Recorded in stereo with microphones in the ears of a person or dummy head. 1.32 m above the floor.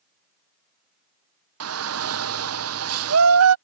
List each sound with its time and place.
1.6 s a shout: 65° right (ahead or behind)